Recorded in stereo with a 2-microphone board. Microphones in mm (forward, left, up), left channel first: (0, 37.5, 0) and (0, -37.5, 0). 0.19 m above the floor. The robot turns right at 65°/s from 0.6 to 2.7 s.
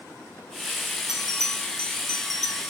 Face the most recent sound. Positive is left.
turn(degrees=145)